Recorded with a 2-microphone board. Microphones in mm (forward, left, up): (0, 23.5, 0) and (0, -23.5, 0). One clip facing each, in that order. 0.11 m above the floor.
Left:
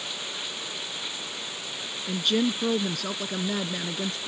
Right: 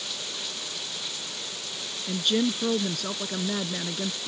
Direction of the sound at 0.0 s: 20° left (ahead or behind).